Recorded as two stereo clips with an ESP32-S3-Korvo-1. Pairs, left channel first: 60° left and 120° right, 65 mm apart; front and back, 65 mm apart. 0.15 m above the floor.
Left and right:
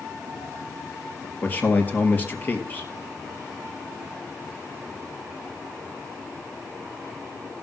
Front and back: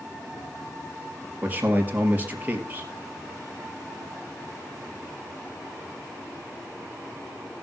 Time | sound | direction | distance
1.4 | a man speaking | 120° left | 3 m